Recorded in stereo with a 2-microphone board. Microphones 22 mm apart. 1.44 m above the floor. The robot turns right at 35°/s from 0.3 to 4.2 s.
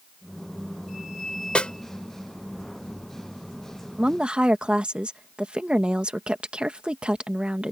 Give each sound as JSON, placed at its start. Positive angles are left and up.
{"t": 1.6, "sound": "a snare drum", "side_deg": 55}
{"t": 4.0, "sound": "a woman speaking", "side_deg": -55}